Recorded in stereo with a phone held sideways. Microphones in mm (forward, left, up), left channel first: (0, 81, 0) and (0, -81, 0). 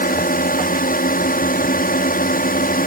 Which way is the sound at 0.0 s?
60° left (ahead or behind).